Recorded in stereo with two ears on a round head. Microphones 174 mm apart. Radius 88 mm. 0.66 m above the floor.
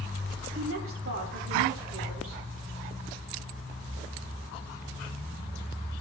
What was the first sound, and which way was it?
A woman speaking, 75° right (ahead or behind).